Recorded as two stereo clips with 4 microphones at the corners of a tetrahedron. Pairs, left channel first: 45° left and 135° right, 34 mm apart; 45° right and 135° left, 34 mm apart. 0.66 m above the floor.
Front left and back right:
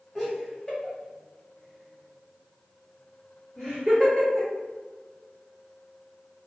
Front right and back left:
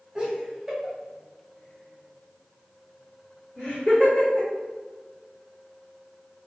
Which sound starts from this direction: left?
Laughter, at 0.1 s.